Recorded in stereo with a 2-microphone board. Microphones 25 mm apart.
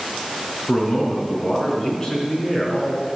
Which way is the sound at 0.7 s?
15° left (ahead or behind).